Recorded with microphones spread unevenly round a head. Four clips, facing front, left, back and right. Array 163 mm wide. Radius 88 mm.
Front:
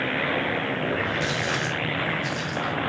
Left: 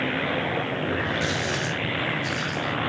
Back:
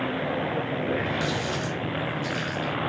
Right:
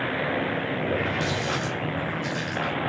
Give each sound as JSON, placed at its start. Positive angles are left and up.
{"t": 0.8, "sound": "a running tap", "azimuth_deg": -155, "distance_m": 9.0}